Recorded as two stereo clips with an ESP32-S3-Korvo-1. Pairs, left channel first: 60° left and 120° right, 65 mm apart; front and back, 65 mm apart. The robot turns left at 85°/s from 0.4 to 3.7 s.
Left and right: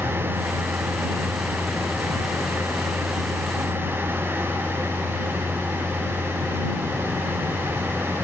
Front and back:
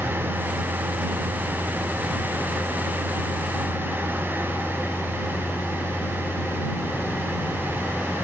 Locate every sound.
0.0 s a vehicle: 140° right; by 8.2 s 60° right